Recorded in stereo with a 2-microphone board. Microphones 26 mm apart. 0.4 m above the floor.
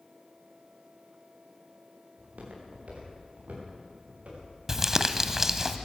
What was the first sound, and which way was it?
Footsteps, 70° right (ahead or behind).